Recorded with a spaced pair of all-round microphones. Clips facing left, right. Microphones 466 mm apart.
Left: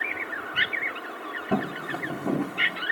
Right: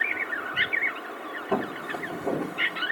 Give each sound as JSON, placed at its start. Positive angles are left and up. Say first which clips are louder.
{"t": 1.5, "sound": "footsteps", "louder": "left 1 dB", "side_deg": 40, "distance_m": 2.0}